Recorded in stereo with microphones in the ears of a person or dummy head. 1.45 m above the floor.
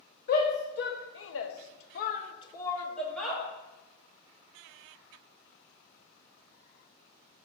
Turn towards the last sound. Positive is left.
turn(degrees=0)  # may be behind; listen again after turning